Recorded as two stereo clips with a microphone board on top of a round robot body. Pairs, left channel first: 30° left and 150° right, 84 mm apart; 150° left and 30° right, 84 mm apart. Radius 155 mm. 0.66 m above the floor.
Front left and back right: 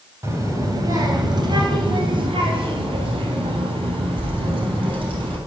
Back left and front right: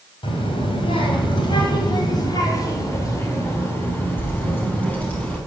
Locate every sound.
0.2 s a child speaking: 155° left, 3.5 m; by 5.4 s 135° right, 6 m